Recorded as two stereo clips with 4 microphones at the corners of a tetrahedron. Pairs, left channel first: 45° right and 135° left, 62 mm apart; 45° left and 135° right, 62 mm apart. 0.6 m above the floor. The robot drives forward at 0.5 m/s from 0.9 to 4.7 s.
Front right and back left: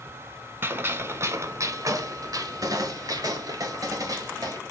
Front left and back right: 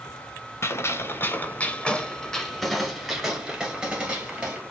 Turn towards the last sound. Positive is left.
turn(degrees=155)